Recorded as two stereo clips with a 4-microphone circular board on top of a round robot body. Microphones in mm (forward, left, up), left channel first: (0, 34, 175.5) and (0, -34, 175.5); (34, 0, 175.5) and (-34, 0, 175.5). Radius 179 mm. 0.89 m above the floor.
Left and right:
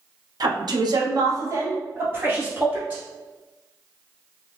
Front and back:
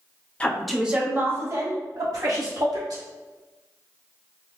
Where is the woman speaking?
70° right, 0.9 m; by 3.0 s 155° right, 2.5 m.